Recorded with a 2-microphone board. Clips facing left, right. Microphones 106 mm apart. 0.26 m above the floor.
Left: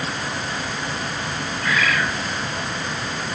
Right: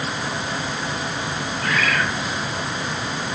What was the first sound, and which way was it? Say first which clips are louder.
A bird: left 1 dB; 50° right (ahead or behind).